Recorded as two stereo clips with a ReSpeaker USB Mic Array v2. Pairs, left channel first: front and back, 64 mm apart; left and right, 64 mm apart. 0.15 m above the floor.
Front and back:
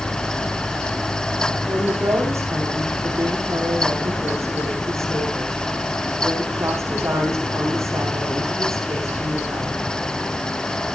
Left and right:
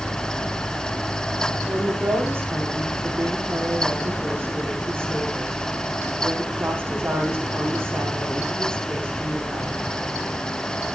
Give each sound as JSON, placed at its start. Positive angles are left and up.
{"t": 1.7, "sound": "a woman speaking", "azimuth_deg": -140, "distance_m": 7.5}